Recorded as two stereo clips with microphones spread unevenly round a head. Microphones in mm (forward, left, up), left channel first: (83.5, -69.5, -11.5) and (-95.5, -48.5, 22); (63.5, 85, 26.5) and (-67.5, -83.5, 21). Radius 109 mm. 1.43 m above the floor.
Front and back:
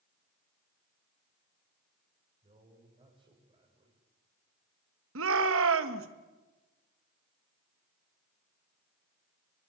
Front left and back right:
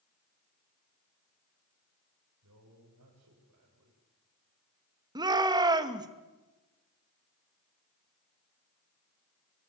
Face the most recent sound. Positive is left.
turn(degrees=160)